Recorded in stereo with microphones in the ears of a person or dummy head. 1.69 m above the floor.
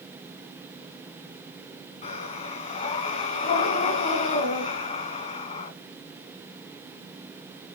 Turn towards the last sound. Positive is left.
turn(degrees=30)  # may be behind; listen again after turning